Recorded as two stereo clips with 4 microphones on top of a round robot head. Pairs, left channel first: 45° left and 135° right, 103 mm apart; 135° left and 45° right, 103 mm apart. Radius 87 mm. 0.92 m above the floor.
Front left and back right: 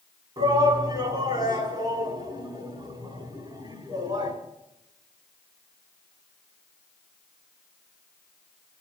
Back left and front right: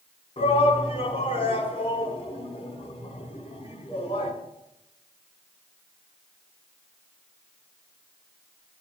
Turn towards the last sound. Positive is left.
turn(degrees=175)